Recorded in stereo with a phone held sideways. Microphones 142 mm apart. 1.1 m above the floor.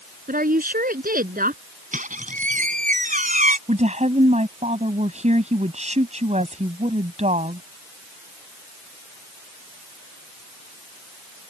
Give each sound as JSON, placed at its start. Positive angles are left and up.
{"t": 0.3, "sound": "a woman speaking", "side_deg": -85}
{"t": 1.9, "sound": "a squeak", "side_deg": -70}
{"t": 3.7, "sound": "a woman speaking", "side_deg": -55}